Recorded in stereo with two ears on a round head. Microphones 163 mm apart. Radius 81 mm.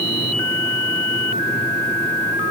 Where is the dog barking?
No dog barking in this recording.